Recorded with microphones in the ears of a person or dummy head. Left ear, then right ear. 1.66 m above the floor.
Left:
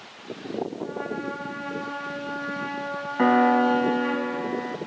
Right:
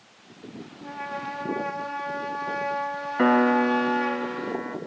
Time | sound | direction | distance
0.8 | a trumpet | 65° right (ahead or behind) | 4 m
3.2 | a piano | 20° right (ahead or behind) | 1.1 m